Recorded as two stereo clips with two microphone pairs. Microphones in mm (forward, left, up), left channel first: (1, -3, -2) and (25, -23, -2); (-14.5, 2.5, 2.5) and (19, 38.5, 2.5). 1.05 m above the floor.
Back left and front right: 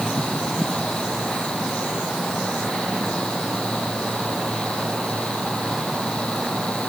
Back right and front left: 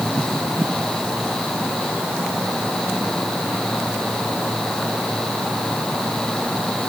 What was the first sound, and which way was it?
Only background noise.